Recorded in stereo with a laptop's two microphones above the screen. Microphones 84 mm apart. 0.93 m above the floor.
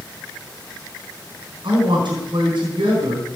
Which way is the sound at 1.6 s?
65° right (ahead or behind).